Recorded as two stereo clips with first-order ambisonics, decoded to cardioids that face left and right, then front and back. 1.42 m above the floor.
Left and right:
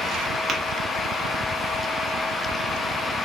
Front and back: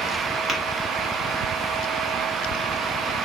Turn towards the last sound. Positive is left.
turn(degrees=-75)